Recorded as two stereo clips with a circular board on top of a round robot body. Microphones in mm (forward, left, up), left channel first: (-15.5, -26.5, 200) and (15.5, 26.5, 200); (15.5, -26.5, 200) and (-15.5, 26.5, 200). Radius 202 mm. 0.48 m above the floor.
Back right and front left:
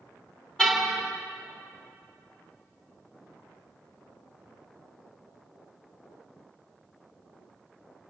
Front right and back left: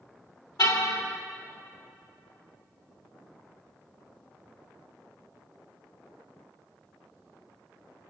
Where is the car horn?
40° right, 3 m.